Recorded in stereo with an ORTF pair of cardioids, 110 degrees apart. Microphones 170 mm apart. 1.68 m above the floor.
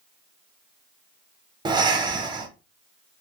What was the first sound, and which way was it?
Breathing, 25° right.